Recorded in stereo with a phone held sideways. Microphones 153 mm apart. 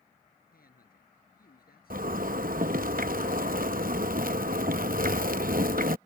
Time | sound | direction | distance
0.5 | a man speaking | 75° left (ahead or behind) | ?
1.9 | a zipper | 70° right (ahead or behind) | ?